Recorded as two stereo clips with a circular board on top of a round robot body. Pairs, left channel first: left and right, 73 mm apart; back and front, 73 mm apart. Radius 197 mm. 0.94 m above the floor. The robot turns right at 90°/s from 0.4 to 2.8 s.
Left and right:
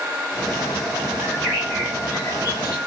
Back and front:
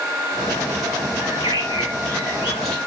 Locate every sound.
1.2 s a bird: 40° right, 3 m; by 2.8 s 100° left, 3 m